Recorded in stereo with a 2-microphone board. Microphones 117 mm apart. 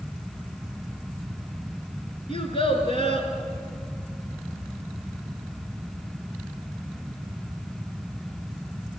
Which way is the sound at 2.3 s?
50° left (ahead or behind).